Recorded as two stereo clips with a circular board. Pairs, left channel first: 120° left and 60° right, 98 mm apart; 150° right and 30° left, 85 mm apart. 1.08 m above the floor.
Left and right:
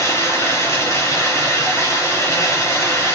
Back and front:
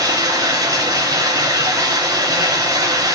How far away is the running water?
About 3 m.